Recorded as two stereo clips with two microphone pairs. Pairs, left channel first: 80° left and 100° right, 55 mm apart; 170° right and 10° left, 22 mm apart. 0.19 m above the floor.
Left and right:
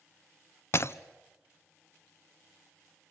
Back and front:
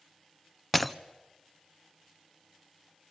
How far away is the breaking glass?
About 0.7 m.